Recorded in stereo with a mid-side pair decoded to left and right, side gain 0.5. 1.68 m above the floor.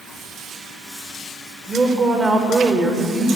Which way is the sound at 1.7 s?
20° right.